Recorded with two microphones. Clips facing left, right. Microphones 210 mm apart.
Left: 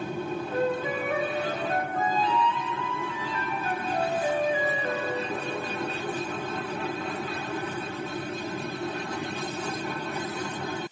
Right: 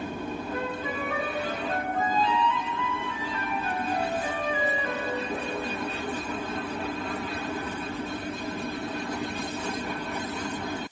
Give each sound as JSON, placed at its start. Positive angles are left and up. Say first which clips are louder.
{"t": 0.5, "sound": "a flute", "louder": "left 9 dB", "side_deg": 40, "distance_m": 0.8}